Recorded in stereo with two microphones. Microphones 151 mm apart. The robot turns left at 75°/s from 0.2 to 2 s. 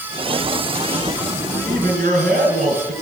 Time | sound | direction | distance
1.6 | a man speaking | 60° right (ahead or behind) | 4 m